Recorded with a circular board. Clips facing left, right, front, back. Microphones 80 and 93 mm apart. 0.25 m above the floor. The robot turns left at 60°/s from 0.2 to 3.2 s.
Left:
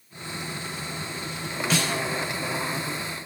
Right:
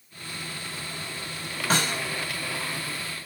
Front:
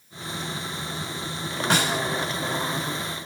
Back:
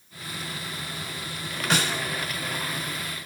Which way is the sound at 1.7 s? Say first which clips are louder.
Right 1 dB, front 2 dB; 55° right.